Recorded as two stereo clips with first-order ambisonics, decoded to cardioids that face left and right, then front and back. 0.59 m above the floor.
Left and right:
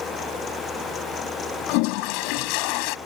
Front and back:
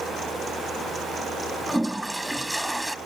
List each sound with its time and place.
1.7 s a toilet flushing: 95° left